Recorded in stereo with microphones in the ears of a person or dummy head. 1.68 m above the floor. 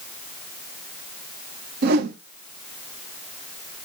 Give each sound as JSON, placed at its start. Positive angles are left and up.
{"t": 1.8, "sound": "a whoosh", "side_deg": -50, "distance_m": 0.6}